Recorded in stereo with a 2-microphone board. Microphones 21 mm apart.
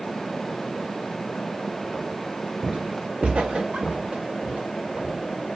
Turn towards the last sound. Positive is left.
turn(degrees=-85)